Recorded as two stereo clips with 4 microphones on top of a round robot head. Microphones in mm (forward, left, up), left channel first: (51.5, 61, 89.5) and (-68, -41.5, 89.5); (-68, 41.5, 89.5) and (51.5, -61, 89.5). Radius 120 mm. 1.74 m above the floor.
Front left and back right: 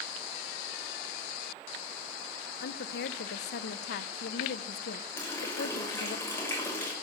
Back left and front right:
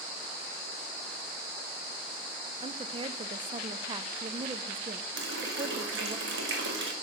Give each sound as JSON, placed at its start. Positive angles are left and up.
{"t": 2.6, "sound": "a woman speaking", "azimuth_deg": 20, "distance_m": 0.6}
{"t": 5.2, "sound": "a running tap", "azimuth_deg": -35, "distance_m": 2.0}